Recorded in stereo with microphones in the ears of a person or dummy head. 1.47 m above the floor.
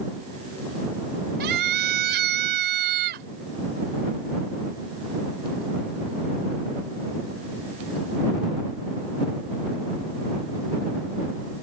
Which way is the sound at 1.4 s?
60° right (ahead or behind).